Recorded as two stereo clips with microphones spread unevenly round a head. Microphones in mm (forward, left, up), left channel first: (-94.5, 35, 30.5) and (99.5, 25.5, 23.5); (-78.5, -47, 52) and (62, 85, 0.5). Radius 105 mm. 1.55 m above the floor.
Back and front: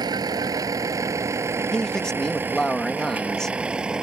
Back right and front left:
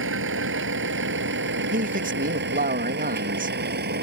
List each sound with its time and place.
0.0 s a vehicle: 70° left; by 4.0 s 85° left
1.7 s a man speaking: 90° left